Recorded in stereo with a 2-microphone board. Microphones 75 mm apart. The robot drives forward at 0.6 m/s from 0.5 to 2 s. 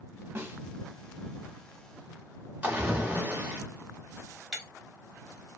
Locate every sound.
0.3 s a snare drum: 35° right (ahead or behind), 0.8 m
2.6 s a splash: 20° right (ahead or behind), 1.6 m
4.5 s breaking glass: 15° right (ahead or behind), 1.3 m